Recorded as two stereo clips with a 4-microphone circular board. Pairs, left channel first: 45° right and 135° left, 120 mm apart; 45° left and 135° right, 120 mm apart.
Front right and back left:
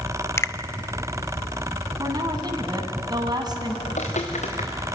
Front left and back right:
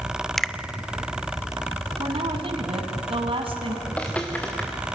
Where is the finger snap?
35° right, 0.6 m.